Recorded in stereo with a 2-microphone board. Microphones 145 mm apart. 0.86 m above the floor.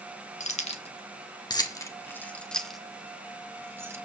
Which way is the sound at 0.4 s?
55° left (ahead or behind).